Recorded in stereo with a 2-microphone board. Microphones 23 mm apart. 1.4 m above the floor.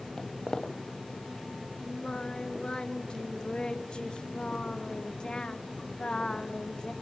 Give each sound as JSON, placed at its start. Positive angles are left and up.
{"t": 0.2, "sound": "footsteps", "side_deg": 30, "distance_m": 2.0}
{"t": 1.8, "sound": "singing", "side_deg": 40, "distance_m": 2.0}